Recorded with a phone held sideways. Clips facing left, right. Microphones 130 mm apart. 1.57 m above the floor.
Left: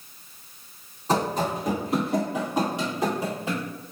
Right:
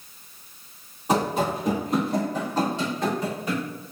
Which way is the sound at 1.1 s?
10° right (ahead or behind).